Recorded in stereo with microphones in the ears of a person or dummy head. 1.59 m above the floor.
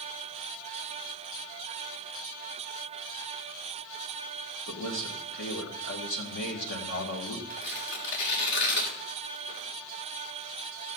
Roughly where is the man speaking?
Left.